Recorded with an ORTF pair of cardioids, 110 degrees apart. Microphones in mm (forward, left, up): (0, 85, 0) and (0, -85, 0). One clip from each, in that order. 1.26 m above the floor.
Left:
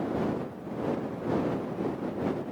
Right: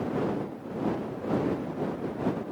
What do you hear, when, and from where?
Only background noise.